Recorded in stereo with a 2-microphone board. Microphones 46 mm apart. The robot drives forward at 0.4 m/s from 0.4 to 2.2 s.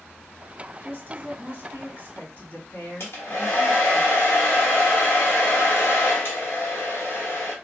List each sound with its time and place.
0.8 s a woman speaking: 55° left (ahead or behind), 2.5 m; by 4.0 s 45° left (ahead or behind), 2.5 m
3.0 s a hair dryer: 55° left (ahead or behind), 1.1 m